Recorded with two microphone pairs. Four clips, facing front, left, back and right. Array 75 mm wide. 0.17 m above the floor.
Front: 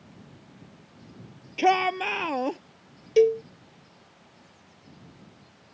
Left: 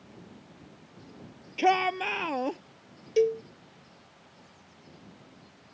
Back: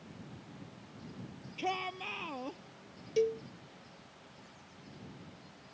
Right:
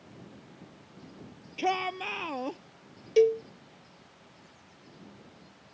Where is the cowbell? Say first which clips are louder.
Right 2 dB, front 12 dB; 35° right.